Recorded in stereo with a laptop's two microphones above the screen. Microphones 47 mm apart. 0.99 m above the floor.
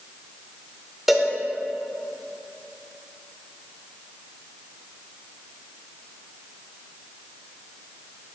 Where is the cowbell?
5° right (ahead or behind), 0.7 m.